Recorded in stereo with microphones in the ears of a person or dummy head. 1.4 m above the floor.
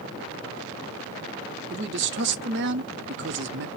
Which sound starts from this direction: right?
A man speaking, at 1.7 s.